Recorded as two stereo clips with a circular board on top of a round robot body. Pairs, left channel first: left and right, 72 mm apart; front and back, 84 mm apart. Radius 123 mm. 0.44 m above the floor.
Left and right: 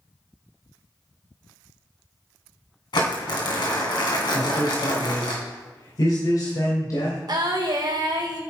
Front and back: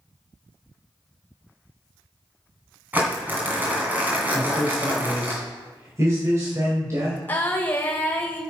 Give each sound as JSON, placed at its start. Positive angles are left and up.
{"t": 2.9, "sound": "crumpling", "azimuth_deg": 110, "distance_m": 2.5}
{"t": 4.3, "sound": "a man speaking", "azimuth_deg": 125, "distance_m": 3.0}
{"t": 7.3, "sound": "singing", "azimuth_deg": -70, "distance_m": 1.7}